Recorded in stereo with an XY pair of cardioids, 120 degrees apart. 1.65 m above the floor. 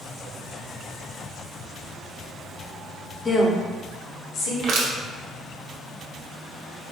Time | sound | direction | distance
3.2 | a woman speaking | 25° left | 0.7 m
4.6 | crushing | 55° right | 0.9 m